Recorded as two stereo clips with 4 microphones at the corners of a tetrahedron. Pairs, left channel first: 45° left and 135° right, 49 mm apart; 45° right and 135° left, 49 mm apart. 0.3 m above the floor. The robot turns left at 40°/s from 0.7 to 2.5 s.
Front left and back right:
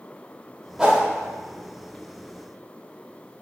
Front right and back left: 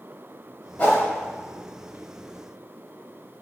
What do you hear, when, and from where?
0.8 s a whoosh: 65° right, 1.1 m; by 1.0 s 70° right, 1.1 m